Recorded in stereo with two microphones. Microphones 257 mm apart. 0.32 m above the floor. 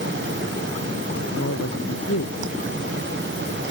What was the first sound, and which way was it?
A man speaking, 75° left (ahead or behind).